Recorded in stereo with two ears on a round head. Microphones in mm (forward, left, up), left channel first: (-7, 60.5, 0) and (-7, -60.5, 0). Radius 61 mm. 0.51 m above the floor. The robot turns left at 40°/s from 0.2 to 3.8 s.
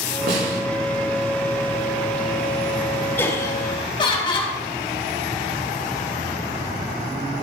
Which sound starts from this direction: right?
A snare drum, at 0.3 s.